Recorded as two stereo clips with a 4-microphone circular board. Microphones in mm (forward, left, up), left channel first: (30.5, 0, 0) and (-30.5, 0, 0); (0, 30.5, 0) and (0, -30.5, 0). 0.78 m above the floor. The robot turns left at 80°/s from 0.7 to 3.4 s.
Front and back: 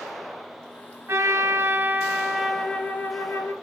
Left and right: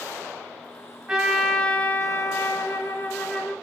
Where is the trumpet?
160° right, 0.8 m; by 3.5 s 15° left, 0.8 m.